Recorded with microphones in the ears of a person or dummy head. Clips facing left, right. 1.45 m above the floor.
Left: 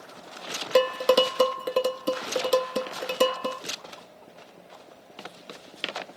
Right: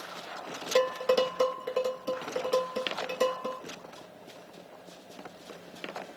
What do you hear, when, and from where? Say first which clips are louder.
0.8 s dishes clattering: left 4 dB; 50° left (ahead or behind), 0.6 m